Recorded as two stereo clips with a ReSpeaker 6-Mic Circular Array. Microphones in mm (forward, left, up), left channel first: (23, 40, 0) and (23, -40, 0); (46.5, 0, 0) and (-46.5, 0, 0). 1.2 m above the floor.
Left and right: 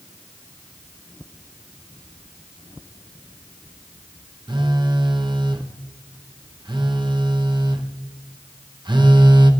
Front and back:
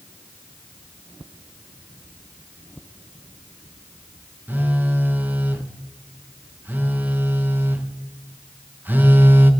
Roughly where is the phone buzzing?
Right.